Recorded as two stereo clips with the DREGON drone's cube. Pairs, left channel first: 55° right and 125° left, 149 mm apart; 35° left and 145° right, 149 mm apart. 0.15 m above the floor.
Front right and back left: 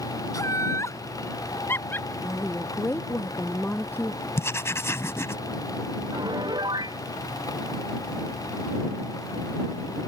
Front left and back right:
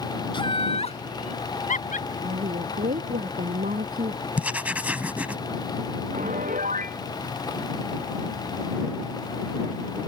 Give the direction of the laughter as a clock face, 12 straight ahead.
12 o'clock.